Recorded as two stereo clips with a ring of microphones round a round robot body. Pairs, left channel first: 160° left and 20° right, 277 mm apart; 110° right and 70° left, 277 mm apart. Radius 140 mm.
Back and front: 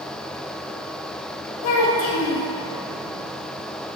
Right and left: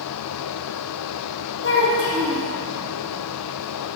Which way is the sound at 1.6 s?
165° right.